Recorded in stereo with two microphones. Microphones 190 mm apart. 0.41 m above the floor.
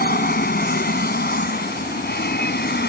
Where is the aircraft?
55° left (ahead or behind); by 2.9 s 60° left (ahead or behind).